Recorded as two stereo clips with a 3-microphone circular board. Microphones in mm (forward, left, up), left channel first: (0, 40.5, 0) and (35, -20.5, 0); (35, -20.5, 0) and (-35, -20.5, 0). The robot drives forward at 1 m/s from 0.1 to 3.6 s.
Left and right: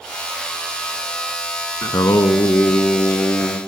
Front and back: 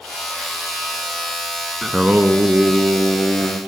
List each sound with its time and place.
1.8 s singing: 95° left, 0.8 m; by 3.6 s 160° left, 2 m